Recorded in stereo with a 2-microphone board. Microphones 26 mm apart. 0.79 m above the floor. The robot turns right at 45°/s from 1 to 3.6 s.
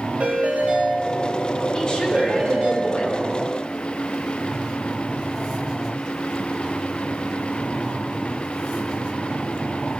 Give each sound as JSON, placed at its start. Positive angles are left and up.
{"t": 0.2, "sound": "a ringtone", "azimuth_deg": -110, "distance_m": 2.5}
{"t": 1.7, "sound": "a woman speaking", "azimuth_deg": 30, "distance_m": 2.5}